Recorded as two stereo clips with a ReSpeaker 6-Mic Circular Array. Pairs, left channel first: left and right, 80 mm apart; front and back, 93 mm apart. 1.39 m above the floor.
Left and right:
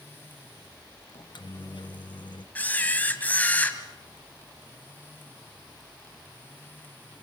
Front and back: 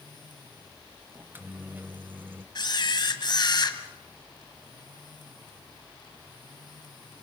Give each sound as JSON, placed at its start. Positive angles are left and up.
{"t": 1.1, "sound": "a microwave", "azimuth_deg": 110, "distance_m": 1.0}
{"t": 2.5, "sound": "a camera shutter", "azimuth_deg": 25, "distance_m": 1.9}